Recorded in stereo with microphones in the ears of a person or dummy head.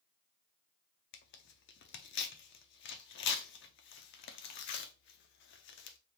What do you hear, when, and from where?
1.1 s tearing paper: 55° left (ahead or behind), 0.5 m